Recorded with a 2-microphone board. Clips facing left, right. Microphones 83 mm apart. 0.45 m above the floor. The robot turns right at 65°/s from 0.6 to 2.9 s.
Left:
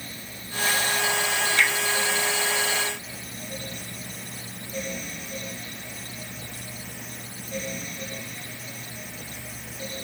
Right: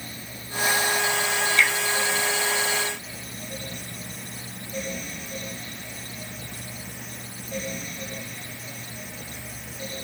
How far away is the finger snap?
About 1.3 m.